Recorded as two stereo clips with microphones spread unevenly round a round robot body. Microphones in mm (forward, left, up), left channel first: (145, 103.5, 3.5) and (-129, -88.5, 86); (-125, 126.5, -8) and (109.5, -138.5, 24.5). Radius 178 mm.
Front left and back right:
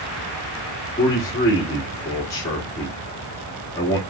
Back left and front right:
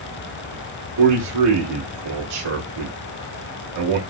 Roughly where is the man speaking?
Ahead right.